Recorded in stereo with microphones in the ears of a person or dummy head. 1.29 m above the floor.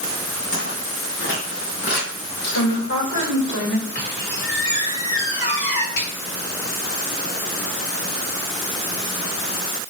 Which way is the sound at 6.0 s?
80° left.